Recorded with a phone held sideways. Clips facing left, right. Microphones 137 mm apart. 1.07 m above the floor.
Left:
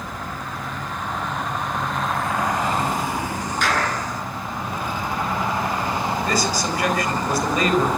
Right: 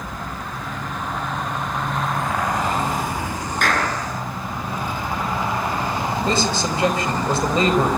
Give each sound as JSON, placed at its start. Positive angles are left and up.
{"t": 3.6, "sound": "a clap", "side_deg": -55, "distance_m": 9.5}
{"t": 6.2, "sound": "a man speaking", "side_deg": -25, "distance_m": 4.5}